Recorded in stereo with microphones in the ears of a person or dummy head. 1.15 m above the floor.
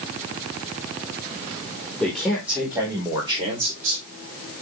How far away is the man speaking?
About 4 m.